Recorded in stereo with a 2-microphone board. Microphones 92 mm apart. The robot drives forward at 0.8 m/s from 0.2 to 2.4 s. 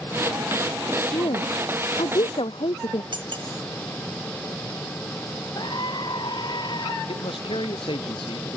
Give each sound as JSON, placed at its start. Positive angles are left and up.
{"t": 1.1, "sound": "a woman speaking", "side_deg": 65}
{"t": 3.1, "sound": "cutlery clinking", "side_deg": -60}
{"t": 5.5, "sound": "a scream", "side_deg": 55}
{"t": 7.1, "sound": "a man speaking", "side_deg": 70}